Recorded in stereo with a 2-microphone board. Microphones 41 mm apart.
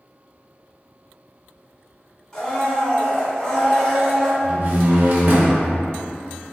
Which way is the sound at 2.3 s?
15° left (ahead or behind).